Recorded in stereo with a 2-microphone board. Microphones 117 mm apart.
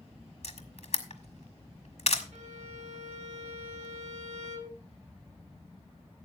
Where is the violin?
75° right (ahead or behind), 1.8 m.